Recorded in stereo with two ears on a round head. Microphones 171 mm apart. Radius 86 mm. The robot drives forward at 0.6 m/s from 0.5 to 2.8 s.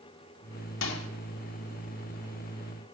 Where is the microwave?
70° left (ahead or behind), 2.5 m; by 1.1 s 75° left (ahead or behind), 2.5 m.